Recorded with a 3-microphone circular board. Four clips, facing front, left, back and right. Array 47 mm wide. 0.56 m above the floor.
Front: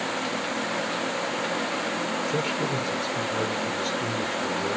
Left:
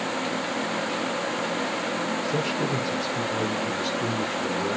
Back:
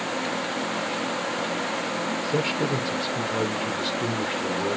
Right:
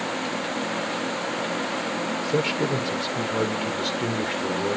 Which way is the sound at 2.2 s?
110° right.